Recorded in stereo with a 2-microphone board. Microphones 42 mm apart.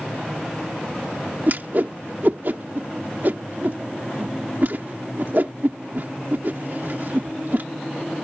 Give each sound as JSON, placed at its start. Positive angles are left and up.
{"t": 1.5, "sound": "a whoosh", "side_deg": -55}